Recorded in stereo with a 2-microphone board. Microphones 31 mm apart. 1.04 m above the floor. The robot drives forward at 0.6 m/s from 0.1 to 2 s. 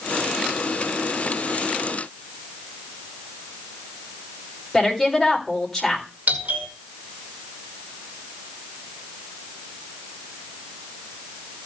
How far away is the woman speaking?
About 4 m.